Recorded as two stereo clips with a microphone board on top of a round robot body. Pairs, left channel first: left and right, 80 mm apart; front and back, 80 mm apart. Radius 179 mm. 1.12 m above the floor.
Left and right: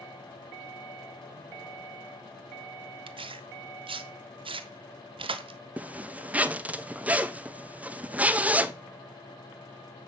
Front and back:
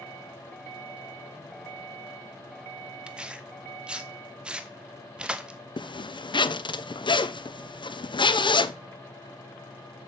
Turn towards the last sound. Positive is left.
turn(degrees=-15)